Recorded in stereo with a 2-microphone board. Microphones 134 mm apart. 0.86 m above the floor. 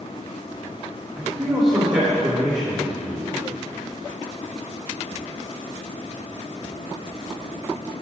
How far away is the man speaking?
About 2 m.